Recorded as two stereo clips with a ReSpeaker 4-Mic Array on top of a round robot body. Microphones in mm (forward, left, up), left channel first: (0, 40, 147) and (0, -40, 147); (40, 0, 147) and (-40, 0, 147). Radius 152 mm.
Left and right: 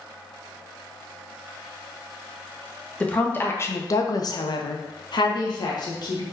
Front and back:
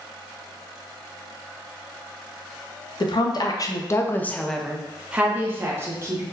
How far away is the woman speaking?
About 0.9 m.